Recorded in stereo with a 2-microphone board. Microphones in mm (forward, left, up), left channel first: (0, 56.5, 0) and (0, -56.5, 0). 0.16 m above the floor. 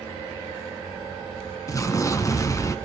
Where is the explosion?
30° left (ahead or behind), 0.8 m.